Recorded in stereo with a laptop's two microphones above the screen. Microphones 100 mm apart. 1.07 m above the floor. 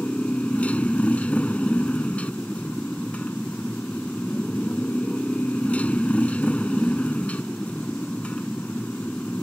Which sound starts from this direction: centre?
A motorcycle, at 0.0 s.